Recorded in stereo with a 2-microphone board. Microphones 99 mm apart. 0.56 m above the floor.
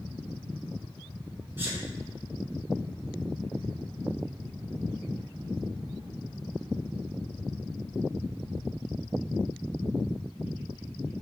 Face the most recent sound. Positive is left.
turn(degrees=-20)  # may be behind; listen again after turning